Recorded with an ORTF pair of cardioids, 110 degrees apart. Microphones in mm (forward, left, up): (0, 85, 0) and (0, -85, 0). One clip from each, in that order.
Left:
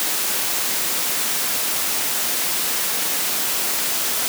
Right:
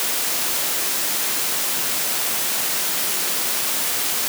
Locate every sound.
Only background noise.